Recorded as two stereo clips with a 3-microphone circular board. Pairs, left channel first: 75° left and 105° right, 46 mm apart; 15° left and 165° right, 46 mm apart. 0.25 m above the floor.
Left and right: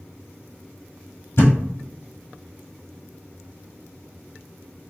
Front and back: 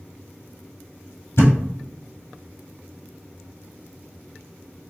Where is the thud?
45° left, 1.3 m.